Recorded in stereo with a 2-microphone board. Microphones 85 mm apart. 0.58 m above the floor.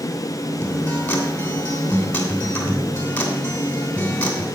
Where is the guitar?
20° left (ahead or behind), 3 m.